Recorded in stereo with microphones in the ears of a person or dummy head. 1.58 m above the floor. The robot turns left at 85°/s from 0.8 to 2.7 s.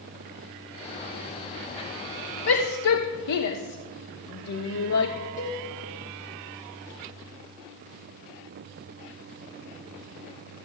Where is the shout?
60° left (ahead or behind), 1.0 m; by 5.1 s 80° left, 1.0 m.